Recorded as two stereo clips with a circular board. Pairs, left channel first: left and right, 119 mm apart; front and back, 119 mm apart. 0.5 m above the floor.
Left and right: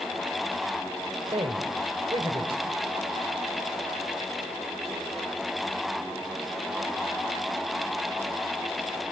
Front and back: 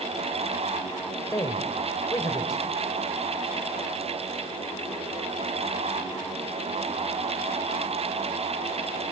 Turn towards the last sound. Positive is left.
turn(degrees=-55)